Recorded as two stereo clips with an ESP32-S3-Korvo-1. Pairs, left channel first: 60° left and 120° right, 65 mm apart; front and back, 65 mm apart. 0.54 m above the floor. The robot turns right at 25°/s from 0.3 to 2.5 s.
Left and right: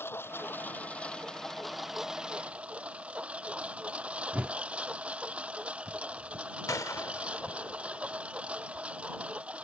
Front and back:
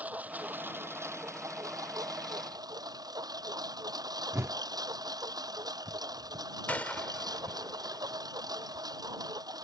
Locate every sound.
0.0 s a lawn mower: 115° left; by 9.6 s 170° left
4.3 s a whoosh: straight behind
6.7 s a gunshot: 60° left